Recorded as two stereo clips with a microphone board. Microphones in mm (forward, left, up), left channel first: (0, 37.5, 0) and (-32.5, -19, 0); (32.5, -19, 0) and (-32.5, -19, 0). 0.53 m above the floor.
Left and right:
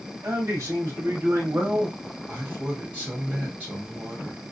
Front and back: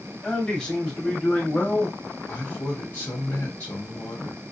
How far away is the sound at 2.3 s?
About 2 m.